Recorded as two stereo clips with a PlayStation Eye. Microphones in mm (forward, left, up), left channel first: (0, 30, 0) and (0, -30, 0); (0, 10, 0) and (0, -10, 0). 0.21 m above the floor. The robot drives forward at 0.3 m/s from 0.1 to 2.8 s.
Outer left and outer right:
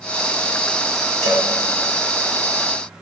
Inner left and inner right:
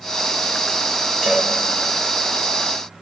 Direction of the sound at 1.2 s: 35° left (ahead or behind).